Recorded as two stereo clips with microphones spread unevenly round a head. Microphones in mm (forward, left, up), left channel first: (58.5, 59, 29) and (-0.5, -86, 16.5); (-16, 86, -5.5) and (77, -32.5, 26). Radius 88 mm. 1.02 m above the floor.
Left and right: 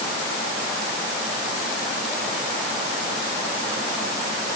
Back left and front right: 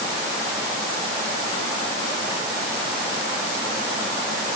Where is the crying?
No crying in this recording.